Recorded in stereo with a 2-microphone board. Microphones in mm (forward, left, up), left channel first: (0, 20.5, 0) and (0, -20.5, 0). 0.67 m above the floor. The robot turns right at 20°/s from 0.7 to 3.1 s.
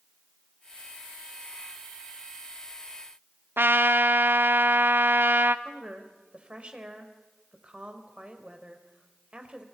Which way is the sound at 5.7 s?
30° right (ahead or behind).